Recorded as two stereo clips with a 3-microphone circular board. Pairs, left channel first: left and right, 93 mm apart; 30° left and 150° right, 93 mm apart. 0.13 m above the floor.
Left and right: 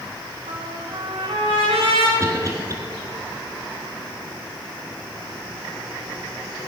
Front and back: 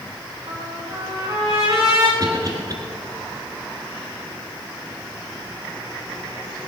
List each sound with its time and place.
0.5 s a trumpet: 95° right, 4.5 m
2.2 s a cough: 130° right, 2 m